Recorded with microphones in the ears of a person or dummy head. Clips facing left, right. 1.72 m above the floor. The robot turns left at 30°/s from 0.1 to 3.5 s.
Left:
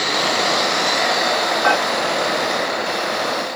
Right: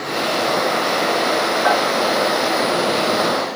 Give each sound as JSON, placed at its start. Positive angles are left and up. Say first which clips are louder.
{"t": 1.6, "sound": "dishes clattering", "louder": "right 1 dB", "side_deg": 50, "distance_m": 1.9}